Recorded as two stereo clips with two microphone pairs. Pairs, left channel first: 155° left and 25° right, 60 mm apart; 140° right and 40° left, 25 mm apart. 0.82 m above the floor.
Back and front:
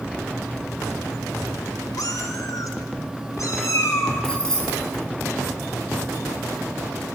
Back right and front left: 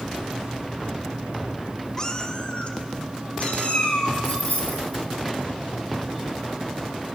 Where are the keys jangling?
125° right, 4 m.